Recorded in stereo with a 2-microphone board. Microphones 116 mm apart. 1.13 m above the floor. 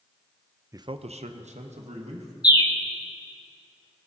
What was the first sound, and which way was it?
A man speaking, 25° right (ahead or behind).